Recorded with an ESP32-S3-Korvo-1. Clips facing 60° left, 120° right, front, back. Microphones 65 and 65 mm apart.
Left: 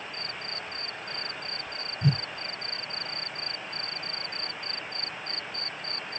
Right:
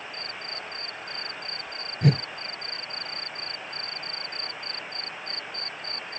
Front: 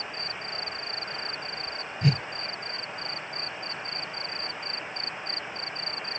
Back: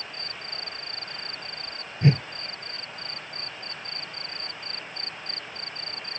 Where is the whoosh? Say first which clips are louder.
Right 5 dB, back 4 dB; 120° right.